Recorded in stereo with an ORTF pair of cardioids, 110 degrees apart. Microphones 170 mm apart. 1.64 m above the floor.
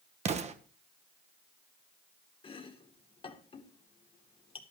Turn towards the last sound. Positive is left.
turn(degrees=30)